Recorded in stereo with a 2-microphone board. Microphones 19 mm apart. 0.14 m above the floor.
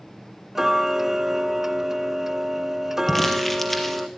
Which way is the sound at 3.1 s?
15° left (ahead or behind).